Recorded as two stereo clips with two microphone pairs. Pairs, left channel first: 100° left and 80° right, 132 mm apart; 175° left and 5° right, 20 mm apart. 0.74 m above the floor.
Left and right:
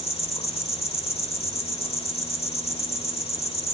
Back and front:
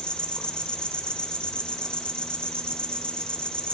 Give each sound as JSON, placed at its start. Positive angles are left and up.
{"t": 0.0, "sound": "an insect", "azimuth_deg": 145, "distance_m": 1.2}